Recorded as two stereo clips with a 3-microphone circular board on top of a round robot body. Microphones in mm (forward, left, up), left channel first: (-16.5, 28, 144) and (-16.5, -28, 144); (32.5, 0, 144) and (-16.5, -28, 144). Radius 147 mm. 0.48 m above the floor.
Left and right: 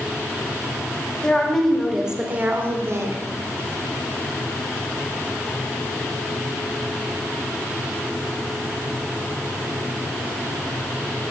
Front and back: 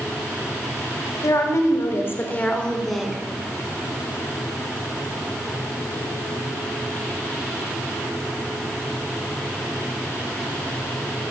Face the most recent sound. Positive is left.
turn(degrees=-70)